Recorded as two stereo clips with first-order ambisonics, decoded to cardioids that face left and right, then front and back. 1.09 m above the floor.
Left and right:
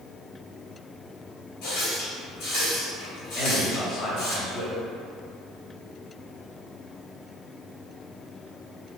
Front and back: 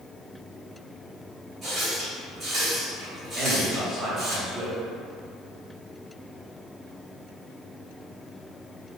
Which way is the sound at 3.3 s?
115° left.